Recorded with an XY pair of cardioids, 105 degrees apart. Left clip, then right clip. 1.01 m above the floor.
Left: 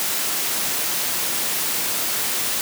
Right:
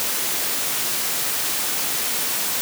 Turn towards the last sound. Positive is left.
No sound to turn to.